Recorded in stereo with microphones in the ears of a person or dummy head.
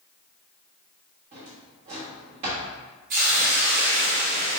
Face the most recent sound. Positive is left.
turn(degrees=-40)  # may be behind; listen again after turning